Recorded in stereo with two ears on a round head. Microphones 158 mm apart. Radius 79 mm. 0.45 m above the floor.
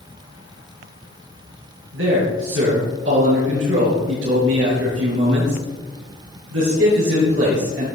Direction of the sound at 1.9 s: 80° right.